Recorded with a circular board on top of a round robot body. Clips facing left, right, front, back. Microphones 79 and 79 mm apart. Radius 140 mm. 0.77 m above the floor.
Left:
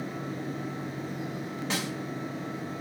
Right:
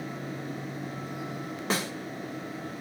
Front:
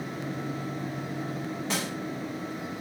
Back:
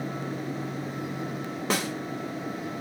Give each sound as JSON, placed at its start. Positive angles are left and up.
{"t": 1.7, "sound": "a snare drum", "azimuth_deg": -140, "distance_m": 0.7}